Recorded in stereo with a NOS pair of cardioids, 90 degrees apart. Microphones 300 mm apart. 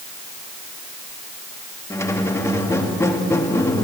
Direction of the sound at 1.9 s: 10° left.